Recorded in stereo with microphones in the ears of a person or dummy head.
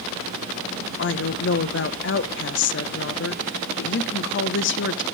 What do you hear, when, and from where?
1.0 s a woman speaking: 60° left (ahead or behind), 1.1 m